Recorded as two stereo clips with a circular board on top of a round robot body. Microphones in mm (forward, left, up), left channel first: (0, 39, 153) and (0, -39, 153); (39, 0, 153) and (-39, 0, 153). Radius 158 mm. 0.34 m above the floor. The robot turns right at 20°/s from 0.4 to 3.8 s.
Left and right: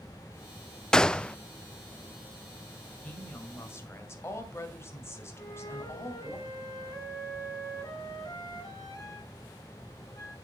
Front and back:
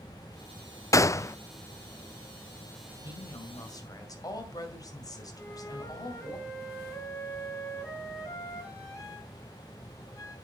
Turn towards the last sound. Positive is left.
turn(degrees=50)